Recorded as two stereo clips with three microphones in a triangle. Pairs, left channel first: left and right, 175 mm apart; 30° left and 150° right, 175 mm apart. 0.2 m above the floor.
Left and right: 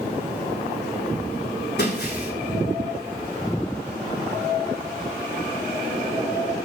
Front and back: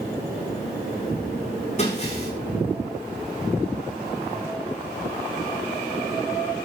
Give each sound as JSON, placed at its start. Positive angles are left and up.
{"t": 1.8, "sound": "breaking glass", "azimuth_deg": 80, "distance_m": 7.0}